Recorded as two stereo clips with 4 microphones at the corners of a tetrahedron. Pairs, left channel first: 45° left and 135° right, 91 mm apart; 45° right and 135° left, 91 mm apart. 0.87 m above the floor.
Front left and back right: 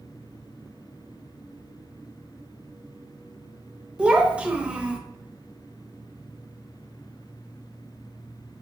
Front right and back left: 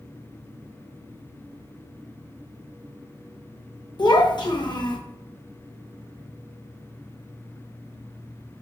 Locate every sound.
4.0 s a child speaking: 60° right, 0.8 m